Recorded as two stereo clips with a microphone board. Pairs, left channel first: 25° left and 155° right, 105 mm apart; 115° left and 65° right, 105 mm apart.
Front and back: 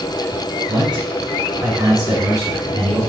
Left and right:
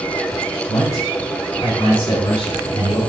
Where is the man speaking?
170° left, 4.5 m; by 3.0 s 140° left, 4.5 m.